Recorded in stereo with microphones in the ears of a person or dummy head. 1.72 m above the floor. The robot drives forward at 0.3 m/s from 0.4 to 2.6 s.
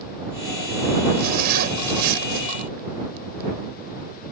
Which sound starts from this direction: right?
A zipper, at 1.2 s.